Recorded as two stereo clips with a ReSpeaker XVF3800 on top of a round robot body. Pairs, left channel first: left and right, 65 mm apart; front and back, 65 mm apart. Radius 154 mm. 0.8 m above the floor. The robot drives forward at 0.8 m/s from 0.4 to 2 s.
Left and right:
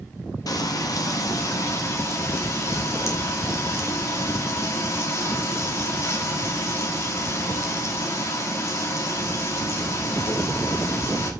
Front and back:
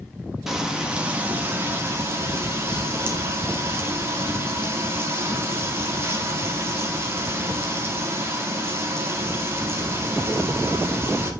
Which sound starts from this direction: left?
Frying, at 0.5 s.